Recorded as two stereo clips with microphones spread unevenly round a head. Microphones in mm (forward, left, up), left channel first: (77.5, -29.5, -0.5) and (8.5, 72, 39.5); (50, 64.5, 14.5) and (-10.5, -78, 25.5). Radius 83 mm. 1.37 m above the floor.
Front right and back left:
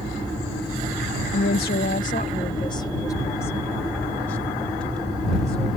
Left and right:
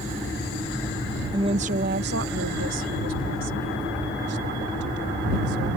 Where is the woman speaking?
50° right; by 5.8 s 145° right.